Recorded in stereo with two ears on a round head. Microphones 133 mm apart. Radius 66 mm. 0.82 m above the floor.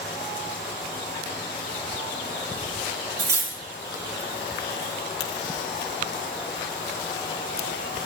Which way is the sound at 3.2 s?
20° right (ahead or behind).